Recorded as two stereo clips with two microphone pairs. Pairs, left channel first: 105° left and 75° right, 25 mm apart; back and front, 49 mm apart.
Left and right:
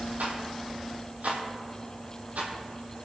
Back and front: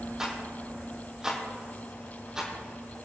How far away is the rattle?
About 1.9 m.